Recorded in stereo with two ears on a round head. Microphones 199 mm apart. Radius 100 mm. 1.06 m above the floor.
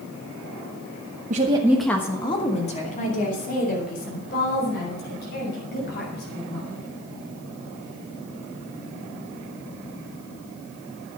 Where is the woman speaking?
40° right (ahead or behind), 1.0 m; by 6.8 s 50° left (ahead or behind), 8 m.